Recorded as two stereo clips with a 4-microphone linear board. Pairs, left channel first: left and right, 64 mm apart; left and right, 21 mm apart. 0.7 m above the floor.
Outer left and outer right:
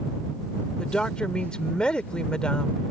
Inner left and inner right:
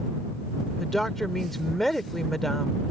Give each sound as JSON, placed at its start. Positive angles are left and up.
{"t": 0.8, "sound": "a woman speaking", "side_deg": 15}